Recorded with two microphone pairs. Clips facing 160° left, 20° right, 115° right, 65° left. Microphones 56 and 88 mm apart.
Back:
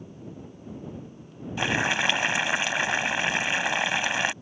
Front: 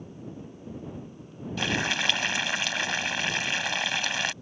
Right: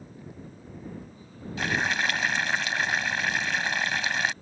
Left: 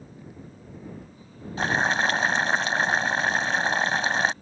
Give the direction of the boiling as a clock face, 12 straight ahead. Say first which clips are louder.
Back 3 dB, left 4 dB; 9 o'clock.